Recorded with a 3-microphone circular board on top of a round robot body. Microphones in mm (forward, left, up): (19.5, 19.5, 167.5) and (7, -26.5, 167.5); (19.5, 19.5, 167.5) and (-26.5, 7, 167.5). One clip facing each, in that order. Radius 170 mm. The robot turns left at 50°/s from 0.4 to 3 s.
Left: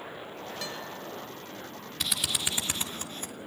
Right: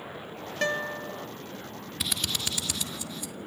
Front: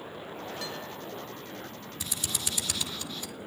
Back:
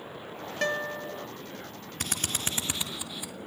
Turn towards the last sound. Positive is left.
turn(degrees=120)